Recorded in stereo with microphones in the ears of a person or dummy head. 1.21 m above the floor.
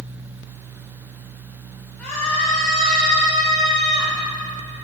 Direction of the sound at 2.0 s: 10° left (ahead or behind).